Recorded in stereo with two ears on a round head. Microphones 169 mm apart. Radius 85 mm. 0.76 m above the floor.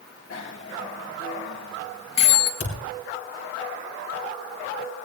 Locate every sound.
0.3 s a bicycle bell: 70° left (ahead or behind), 3 m
2.6 s a thud: 70° left (ahead or behind), 5.5 m